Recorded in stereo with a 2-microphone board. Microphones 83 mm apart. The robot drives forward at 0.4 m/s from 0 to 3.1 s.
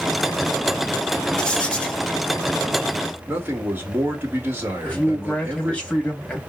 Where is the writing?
10° left (ahead or behind), 1.0 m; by 2.0 s 15° left (ahead or behind), 0.8 m.